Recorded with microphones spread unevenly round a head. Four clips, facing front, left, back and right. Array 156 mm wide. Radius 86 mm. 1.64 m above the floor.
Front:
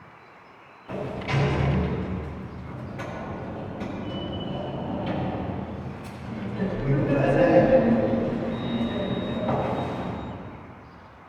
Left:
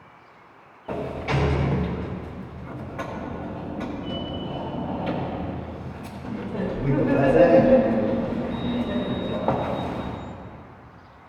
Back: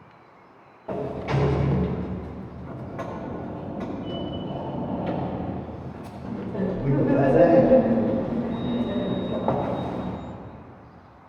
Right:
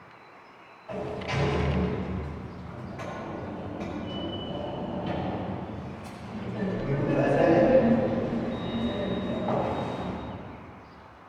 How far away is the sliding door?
About 1.3 m.